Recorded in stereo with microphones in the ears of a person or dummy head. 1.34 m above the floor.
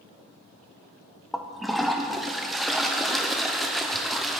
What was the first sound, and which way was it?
A toilet flushing, 5° left (ahead or behind).